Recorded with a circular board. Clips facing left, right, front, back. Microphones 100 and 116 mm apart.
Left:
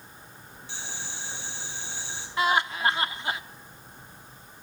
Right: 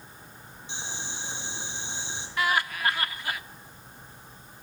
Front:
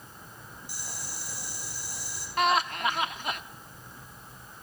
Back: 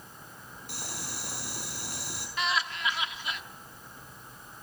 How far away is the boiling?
About 4.5 m.